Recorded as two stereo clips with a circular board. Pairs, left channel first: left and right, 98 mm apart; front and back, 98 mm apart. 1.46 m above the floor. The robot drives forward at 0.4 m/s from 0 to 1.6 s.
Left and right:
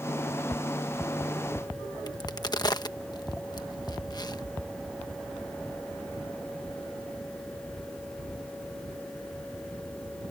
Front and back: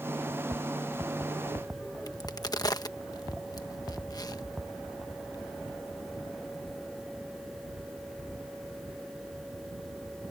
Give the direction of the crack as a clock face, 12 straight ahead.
10 o'clock.